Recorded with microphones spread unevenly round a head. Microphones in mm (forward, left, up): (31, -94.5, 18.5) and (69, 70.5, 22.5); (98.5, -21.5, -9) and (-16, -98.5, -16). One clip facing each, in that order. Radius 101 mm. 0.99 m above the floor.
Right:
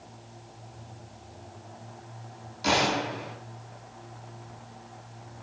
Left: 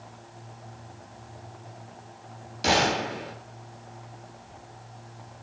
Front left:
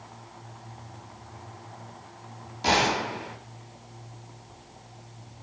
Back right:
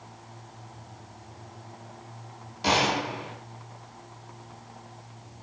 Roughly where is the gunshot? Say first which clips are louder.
Left 2 dB, front left 1 dB; behind left.